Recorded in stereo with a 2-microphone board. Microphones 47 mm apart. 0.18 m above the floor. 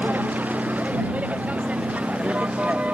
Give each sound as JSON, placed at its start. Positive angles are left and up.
{"t": 0.0, "sound": "a vehicle", "side_deg": -35}